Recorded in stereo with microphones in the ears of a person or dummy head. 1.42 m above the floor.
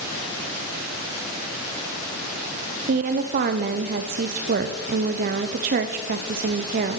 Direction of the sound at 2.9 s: 55° right (ahead or behind).